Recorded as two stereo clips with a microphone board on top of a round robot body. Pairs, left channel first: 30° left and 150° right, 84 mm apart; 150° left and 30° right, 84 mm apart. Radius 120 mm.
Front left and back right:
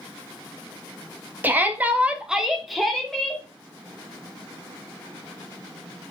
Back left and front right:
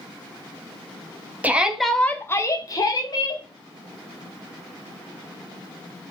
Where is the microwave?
I don't hear a microwave.